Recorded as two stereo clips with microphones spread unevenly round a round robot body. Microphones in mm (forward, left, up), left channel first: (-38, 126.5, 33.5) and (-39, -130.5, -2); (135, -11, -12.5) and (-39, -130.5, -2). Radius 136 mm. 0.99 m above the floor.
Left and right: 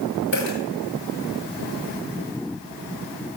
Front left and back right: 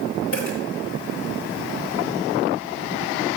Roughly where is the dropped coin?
Ahead left.